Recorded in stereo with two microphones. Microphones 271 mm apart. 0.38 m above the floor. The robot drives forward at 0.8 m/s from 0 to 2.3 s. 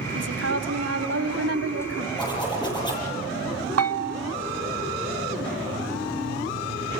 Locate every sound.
0.1 s a woman speaking: 65° right (ahead or behind), 2 m; by 2.1 s 55° right (ahead or behind), 2.5 m
2.2 s a zipper: 15° left (ahead or behind), 8.5 m
3.8 s a bell: 60° right (ahead or behind), 0.6 m